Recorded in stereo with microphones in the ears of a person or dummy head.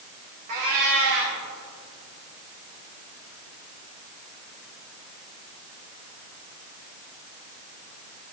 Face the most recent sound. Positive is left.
turn(degrees=-35)  # may be behind; listen again after turning